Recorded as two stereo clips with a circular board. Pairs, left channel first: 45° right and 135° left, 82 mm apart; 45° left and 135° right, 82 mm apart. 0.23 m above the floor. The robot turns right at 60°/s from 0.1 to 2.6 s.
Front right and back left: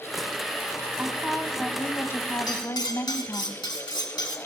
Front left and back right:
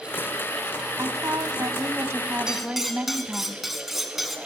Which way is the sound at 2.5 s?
55° right.